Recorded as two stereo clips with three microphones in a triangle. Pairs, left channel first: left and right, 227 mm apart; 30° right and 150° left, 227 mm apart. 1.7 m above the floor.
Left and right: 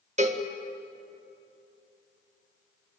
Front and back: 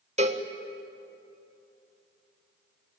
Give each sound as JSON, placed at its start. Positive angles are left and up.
{"t": 0.2, "sound": "a cowbell", "azimuth_deg": -150, "distance_m": 1.8}